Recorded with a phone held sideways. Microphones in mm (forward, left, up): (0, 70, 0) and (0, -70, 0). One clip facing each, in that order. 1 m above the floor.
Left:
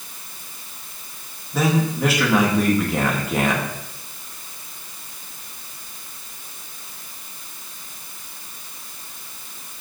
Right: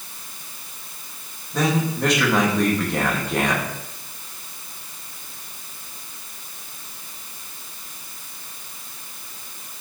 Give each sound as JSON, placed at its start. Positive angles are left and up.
{"t": 1.5, "sound": "a man speaking", "side_deg": 5, "distance_m": 1.7}